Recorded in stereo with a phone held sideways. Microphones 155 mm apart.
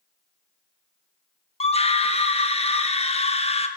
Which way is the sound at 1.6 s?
40° left (ahead or behind).